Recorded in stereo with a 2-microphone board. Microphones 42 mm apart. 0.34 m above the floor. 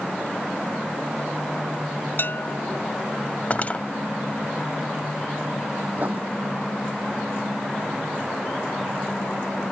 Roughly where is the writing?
Right.